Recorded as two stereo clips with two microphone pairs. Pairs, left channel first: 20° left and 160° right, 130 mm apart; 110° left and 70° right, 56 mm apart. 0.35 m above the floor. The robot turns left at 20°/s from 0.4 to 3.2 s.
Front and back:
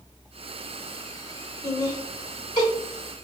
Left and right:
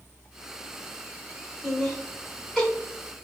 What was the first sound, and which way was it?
Laughter, 35° left.